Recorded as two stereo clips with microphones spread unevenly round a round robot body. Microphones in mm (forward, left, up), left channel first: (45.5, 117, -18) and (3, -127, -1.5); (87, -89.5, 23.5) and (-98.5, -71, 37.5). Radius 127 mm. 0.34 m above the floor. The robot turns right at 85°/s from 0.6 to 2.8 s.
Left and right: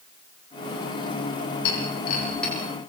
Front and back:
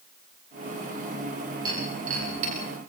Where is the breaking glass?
100° left, 8 m; by 2.5 s 175° left, 8 m.